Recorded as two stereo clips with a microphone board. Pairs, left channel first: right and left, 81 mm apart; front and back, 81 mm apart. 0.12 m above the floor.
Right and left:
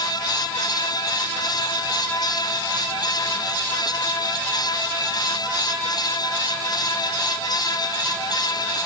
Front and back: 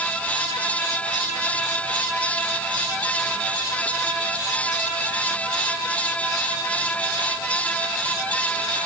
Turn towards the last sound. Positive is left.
No sound to turn to.